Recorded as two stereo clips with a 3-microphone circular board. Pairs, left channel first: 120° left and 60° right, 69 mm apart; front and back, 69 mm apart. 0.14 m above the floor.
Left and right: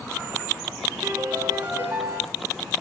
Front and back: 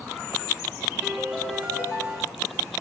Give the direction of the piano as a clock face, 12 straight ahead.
4 o'clock.